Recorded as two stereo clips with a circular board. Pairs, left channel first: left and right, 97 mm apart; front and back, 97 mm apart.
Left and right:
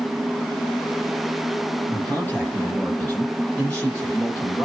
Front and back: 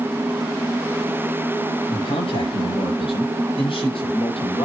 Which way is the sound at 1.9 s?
20° left.